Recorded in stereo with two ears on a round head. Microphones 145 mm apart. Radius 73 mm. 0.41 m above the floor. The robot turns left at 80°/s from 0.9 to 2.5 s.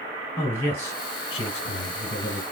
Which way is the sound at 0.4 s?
155° left.